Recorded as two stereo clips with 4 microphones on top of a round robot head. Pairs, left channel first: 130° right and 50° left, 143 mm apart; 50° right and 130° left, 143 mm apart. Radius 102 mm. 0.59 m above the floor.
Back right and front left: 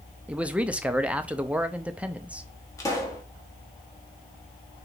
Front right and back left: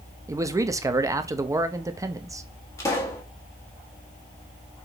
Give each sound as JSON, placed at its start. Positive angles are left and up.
{"t": 0.3, "sound": "a man speaking", "azimuth_deg": 115, "distance_m": 0.5}
{"t": 2.8, "sound": "a pop", "azimuth_deg": -95, "distance_m": 1.3}